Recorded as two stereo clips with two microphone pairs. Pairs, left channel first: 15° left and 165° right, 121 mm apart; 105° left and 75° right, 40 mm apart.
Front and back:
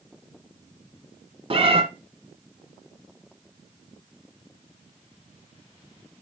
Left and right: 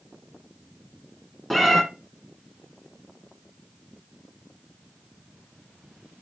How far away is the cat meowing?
About 0.9 m.